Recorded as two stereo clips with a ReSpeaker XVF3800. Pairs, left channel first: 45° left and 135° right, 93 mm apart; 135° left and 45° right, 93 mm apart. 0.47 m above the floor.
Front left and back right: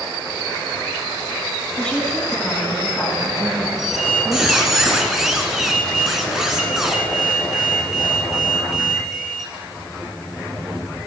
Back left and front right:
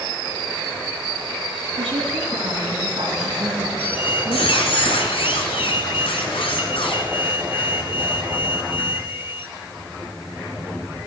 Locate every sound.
1.8 s a woman speaking: 35° right, 4.5 m
3.8 s a squeak: 140° left, 2 m